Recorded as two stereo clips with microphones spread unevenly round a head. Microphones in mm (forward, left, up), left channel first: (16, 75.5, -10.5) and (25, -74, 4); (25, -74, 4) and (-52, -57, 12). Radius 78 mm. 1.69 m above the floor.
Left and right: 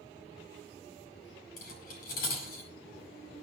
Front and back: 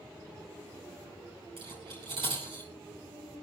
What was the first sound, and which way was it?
Cutlery clinking, 135° left.